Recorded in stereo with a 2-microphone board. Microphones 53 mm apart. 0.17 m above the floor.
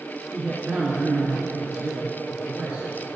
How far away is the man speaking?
About 2.5 m.